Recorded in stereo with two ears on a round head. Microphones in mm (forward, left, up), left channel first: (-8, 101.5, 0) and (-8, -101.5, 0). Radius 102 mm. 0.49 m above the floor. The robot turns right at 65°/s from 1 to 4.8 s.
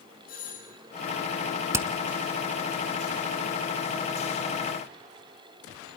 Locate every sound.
0.3 s a doorbell: 40° left (ahead or behind), 8 m
1.7 s hammering: 15° right (ahead or behind), 1.1 m; by 1.9 s 5° right (ahead or behind), 1.1 m